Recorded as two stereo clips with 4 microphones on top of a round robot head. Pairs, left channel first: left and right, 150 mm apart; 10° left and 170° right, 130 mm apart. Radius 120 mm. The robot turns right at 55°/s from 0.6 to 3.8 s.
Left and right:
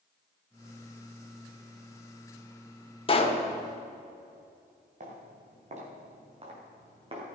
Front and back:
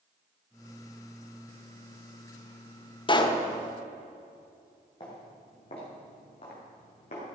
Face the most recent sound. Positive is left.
turn(degrees=-35)